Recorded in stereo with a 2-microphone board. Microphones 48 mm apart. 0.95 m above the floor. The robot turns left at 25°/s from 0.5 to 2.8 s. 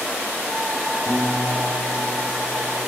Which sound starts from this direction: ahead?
A guitar, at 1.1 s.